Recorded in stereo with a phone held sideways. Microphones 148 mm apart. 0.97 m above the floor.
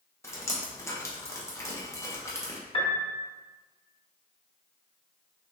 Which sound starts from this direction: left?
A piano, at 2.7 s.